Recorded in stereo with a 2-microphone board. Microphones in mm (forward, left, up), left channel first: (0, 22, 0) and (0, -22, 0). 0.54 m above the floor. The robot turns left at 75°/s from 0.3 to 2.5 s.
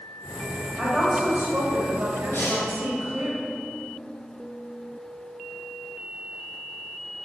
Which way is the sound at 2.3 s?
55° left (ahead or behind).